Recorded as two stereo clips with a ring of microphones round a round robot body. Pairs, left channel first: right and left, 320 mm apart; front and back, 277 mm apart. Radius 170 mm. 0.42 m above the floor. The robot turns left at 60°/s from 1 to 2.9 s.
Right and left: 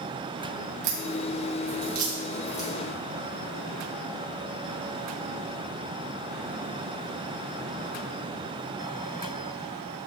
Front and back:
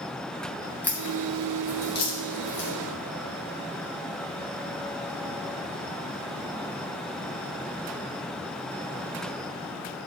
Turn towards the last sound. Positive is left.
turn(degrees=-30)